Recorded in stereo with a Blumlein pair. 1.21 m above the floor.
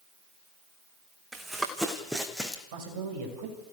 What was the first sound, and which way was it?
Running footsteps, 10° right.